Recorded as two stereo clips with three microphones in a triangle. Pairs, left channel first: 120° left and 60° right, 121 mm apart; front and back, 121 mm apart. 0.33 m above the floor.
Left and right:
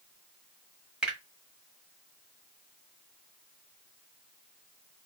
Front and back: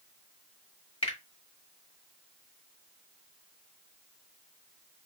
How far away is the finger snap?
About 1.4 m.